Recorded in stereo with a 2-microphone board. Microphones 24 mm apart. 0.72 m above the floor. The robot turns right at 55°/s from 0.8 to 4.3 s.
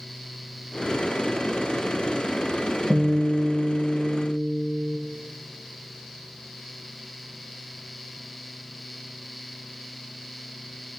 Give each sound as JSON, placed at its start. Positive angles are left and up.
{"t": 2.9, "sound": "a guitar", "azimuth_deg": 165, "distance_m": 1.2}